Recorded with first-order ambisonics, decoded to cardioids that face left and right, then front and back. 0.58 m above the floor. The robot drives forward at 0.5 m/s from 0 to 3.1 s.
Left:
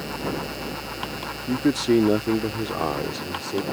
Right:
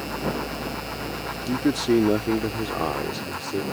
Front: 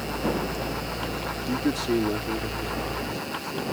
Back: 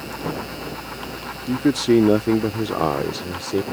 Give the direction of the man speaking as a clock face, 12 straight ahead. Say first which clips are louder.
Left 1 dB, back 8 dB; 6 o'clock.